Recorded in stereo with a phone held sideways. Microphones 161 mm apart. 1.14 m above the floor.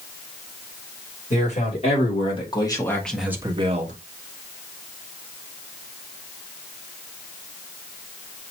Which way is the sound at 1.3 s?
50° left (ahead or behind).